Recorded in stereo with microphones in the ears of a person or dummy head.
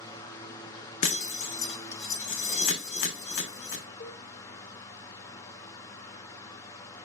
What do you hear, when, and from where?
0.0 s a fan: 20° left (ahead or behind), 0.7 m
1.0 s breaking glass: 45° left (ahead or behind), 0.9 m
4.0 s a cowbell: 25° left (ahead or behind), 3.5 m